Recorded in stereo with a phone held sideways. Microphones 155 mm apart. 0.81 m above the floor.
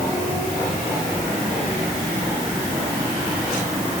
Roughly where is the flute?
I don't hear a flute.